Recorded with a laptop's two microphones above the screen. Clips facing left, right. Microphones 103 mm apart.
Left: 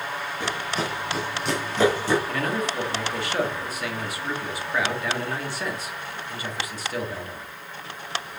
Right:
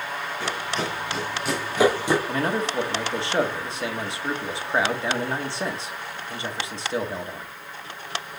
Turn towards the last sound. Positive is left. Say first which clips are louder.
# right 2 dB
turn(degrees=-25)  # may be behind; listen again after turning